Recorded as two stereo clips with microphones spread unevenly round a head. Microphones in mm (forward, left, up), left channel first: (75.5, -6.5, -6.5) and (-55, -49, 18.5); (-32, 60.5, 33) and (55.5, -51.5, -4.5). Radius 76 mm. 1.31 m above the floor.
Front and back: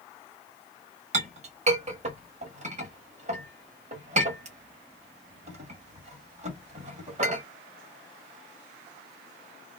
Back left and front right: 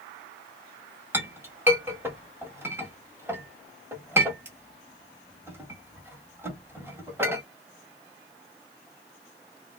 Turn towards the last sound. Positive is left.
turn(degrees=-130)